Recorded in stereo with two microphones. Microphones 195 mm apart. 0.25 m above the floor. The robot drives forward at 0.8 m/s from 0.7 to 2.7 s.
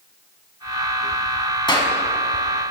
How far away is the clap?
About 2.0 m.